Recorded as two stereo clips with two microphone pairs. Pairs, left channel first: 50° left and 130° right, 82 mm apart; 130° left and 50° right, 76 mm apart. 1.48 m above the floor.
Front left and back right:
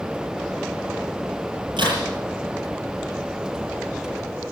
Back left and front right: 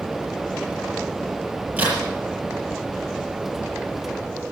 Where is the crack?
120° right, 8.5 m.